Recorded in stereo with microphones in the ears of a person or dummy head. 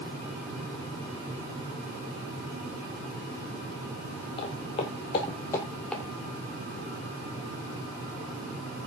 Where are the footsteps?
30° left (ahead or behind), 1.4 m; by 6.0 s 5° left (ahead or behind), 1.4 m.